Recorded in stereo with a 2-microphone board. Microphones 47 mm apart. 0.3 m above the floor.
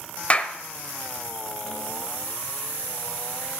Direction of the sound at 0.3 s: 30° left (ahead or behind).